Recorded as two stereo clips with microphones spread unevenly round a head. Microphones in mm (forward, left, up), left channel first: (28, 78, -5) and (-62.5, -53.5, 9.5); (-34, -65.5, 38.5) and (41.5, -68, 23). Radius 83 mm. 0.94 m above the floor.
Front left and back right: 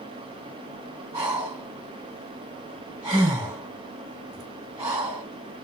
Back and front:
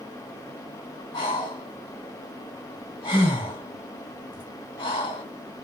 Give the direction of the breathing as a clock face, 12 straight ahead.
6 o'clock.